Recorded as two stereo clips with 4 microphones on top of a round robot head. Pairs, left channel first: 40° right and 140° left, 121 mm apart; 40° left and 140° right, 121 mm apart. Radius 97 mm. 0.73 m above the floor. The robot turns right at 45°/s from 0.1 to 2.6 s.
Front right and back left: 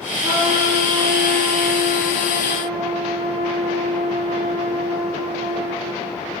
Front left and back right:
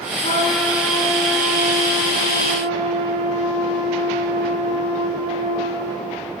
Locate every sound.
0.2 s a trumpet: 80° left, 4 m; by 6.2 s 175° right, 4 m